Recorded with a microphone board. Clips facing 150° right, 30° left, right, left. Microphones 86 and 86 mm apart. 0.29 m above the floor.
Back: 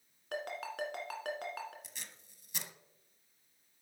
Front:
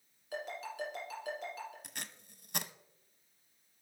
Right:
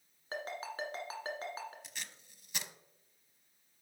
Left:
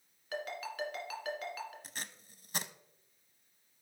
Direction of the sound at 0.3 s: 145° right.